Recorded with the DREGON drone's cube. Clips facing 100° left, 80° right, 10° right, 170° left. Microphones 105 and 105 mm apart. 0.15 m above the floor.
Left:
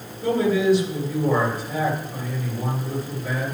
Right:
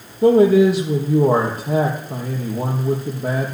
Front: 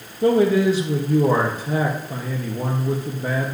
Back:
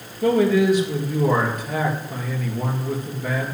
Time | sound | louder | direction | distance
0.2 | a man speaking | right 8 dB, front 1 dB | 70° right | 3 m